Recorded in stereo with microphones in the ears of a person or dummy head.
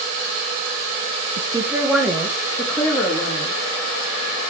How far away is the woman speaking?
About 1.0 m.